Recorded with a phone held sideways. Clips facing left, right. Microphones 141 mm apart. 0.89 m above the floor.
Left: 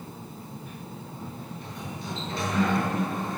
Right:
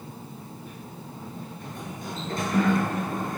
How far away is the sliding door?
About 7.5 m.